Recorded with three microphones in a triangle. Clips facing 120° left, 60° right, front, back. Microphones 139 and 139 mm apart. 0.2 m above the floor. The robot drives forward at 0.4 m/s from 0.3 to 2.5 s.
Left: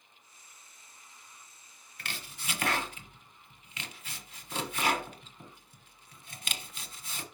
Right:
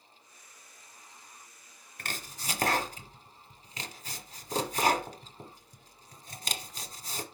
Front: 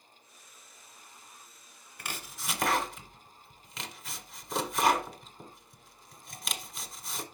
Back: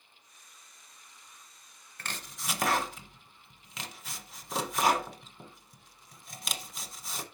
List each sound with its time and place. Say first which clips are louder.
2.0 s chopping: right 3 dB, even; 75° right, 1.0 m; by 7.2 s 90° right, 1.0 m